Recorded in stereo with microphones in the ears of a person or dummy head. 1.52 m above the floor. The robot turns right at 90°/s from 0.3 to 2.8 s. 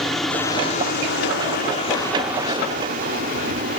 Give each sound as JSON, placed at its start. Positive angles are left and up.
{"t": 0.0, "sound": "a helicopter", "azimuth_deg": 0}